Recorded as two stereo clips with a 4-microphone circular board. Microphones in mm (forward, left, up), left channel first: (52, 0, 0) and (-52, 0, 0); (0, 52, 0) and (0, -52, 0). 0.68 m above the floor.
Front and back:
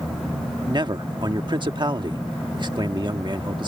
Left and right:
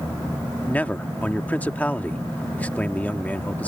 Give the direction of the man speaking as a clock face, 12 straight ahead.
7 o'clock.